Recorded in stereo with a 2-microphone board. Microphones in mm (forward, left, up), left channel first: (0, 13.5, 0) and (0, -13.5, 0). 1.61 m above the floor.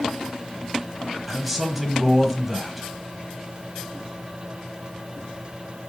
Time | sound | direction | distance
1.3 | a man speaking | centre (ahead or behind) | 1.2 m